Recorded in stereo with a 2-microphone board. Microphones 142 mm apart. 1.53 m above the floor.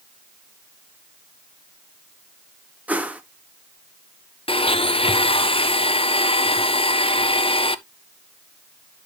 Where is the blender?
40° left (ahead or behind), 0.6 m.